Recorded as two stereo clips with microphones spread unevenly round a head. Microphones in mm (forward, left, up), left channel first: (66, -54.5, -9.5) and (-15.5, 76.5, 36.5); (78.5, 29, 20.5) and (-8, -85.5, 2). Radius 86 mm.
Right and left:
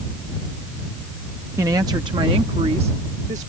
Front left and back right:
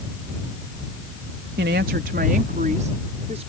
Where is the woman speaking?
165° right; by 3.5 s 175° left.